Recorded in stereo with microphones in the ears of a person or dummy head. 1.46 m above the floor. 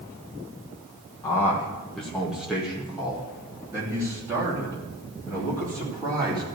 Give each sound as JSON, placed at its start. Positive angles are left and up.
{"t": 1.2, "sound": "a man speaking", "side_deg": 15, "distance_m": 1.4}